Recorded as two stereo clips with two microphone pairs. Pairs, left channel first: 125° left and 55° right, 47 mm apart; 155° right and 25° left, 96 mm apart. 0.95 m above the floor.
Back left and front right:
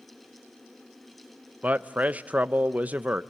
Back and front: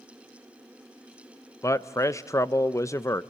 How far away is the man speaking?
About 0.5 m.